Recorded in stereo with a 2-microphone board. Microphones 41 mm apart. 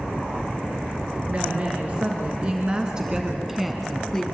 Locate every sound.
1.3 s a woman speaking: 45° right (ahead or behind), 3 m; by 4.2 s 10° left (ahead or behind), 1.6 m